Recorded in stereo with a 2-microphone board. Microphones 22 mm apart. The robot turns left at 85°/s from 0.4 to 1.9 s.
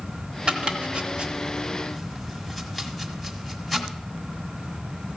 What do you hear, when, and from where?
0.5 s chopping: 50° right (ahead or behind), 1.5 m; by 3.9 s 5° left (ahead or behind), 1.5 m